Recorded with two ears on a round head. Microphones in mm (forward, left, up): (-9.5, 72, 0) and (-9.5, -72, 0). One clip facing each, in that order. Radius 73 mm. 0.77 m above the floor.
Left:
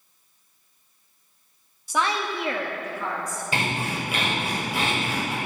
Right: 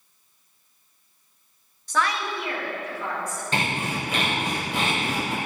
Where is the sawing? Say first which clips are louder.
Even; 10° left (ahead or behind), 3 m.